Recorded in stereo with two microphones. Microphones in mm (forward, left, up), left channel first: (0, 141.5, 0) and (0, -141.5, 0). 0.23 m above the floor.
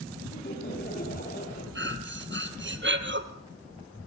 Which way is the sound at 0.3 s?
35° left (ahead or behind).